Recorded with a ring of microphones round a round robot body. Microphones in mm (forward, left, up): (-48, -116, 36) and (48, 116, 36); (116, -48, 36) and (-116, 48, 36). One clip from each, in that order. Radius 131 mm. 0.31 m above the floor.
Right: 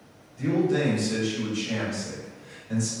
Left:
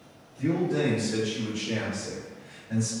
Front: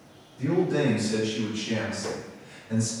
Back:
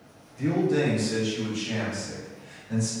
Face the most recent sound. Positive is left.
turn(degrees=-90)